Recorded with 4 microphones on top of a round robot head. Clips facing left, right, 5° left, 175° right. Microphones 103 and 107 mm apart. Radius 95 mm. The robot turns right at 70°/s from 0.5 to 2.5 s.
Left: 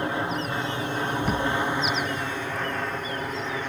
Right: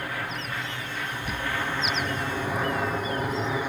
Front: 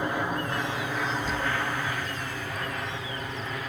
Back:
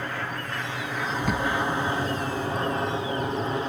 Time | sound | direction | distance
0.0 | an aircraft | 60° left | ?
1.1 | a bird | 135° left | ?